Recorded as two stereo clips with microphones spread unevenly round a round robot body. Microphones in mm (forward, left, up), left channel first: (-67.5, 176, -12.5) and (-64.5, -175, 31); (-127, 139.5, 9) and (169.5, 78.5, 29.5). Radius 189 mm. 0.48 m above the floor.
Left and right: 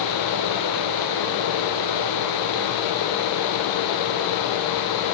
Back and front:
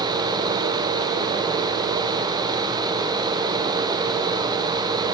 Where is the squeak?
No squeak in this recording.